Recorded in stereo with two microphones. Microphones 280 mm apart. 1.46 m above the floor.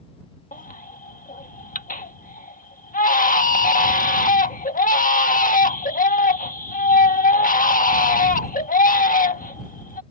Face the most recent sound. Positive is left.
turn(degrees=30)  # may be behind; listen again after turning